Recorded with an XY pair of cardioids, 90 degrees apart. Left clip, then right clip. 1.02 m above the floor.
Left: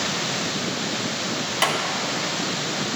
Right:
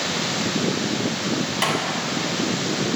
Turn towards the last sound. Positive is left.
turn(degrees=25)